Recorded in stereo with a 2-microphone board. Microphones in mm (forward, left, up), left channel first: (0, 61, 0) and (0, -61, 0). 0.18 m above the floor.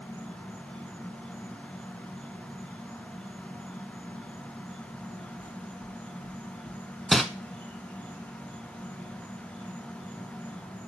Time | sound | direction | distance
0.0 | an insect | 15° left (ahead or behind) | 4 m
5.4 | knocking | 10° left (ahead or behind) | 1.7 m
7.1 | crumpling | centre (ahead or behind) | 0.8 m